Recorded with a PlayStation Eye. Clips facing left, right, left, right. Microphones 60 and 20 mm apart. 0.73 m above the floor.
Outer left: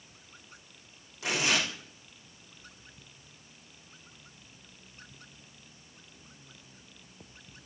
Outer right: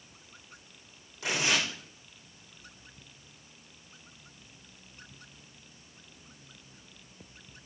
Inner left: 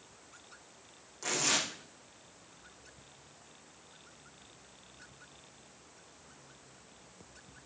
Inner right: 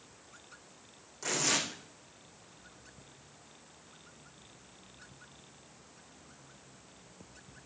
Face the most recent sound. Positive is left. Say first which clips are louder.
# even, even
turn(degrees=0)  # may be behind; listen again after turning